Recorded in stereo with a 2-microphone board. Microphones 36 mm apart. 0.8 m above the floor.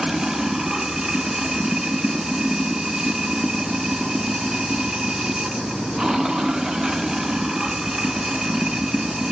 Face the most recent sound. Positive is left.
turn(degrees=-10)  # may be behind; listen again after turning